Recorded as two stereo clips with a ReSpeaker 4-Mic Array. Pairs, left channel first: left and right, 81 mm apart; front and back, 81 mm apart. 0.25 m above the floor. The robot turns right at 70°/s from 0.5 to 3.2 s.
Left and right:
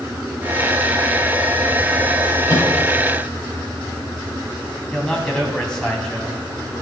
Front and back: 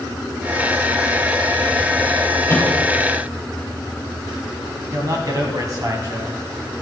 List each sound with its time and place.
2.5 s a microwave: 60° left, 3.5 m; by 2.7 s 75° left, 3.5 m
4.9 s a man speaking: 165° left, 2.0 m